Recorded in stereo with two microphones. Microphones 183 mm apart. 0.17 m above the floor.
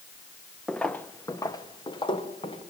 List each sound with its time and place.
0.7 s footsteps: centre (ahead or behind), 1.0 m; by 2.6 s 30° left (ahead or behind), 2.5 m